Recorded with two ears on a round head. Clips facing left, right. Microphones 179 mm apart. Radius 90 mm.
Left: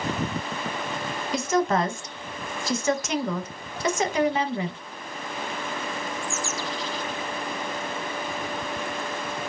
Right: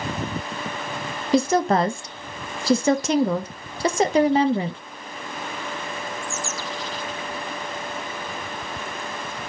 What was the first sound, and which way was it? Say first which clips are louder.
A woman speaking: right 5 dB; 30° right (ahead or behind).